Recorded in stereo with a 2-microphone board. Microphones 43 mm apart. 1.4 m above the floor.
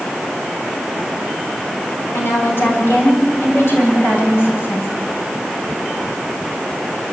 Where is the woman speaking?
60° left (ahead or behind), 8.5 m; by 4.9 s 70° left (ahead or behind), 9.5 m.